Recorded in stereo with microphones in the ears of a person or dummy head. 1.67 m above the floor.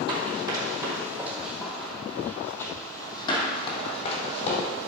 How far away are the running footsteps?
About 3 m.